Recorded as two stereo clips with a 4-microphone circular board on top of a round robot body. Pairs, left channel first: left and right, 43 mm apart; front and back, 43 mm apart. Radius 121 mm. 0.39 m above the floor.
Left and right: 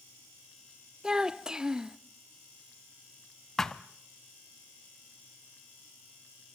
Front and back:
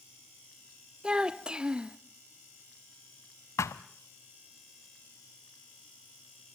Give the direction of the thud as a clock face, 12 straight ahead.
12 o'clock.